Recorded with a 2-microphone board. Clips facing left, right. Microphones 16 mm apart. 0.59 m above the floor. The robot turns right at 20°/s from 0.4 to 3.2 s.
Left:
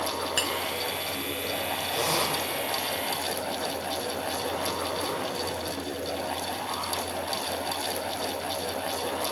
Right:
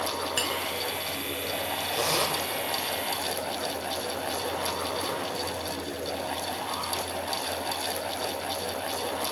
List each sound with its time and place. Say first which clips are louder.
0.4 s a clink: left 1 dB; centre (ahead or behind), 2 m
1.9 s a zipper: even; 15° right (ahead or behind), 2.5 m; by 2.4 s 20° right (ahead or behind), 2.5 m